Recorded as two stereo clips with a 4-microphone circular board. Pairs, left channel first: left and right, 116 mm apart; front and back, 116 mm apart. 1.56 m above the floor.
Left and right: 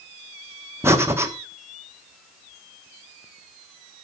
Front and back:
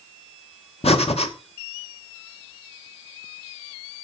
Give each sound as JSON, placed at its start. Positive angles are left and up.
{"t": 0.8, "sound": "breathing", "azimuth_deg": -25, "distance_m": 1.3}